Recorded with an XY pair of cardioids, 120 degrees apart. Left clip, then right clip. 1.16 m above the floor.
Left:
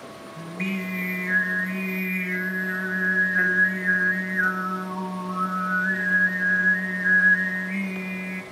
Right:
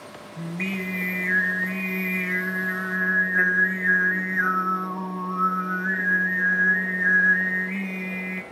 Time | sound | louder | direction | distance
0.4 | singing | right 1 dB | 10° right | 0.7 m